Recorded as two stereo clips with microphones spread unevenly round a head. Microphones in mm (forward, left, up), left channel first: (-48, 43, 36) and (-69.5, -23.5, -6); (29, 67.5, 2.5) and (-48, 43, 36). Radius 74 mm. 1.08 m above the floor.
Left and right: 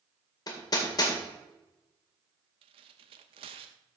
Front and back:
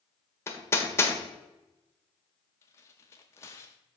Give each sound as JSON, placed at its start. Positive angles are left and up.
{"t": 0.5, "sound": "hammering", "azimuth_deg": 80, "distance_m": 1.9}
{"t": 2.6, "sound": "tearing paper", "azimuth_deg": -70, "distance_m": 0.6}